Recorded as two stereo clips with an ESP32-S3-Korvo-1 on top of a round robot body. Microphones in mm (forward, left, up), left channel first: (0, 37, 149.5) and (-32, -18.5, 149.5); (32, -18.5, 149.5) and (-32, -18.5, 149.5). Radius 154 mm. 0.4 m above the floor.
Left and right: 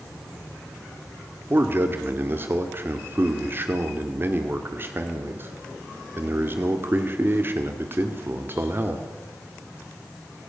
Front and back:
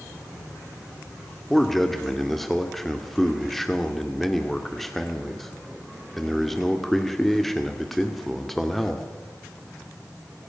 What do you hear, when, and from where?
1.5 s a man speaking: 85° right, 2.0 m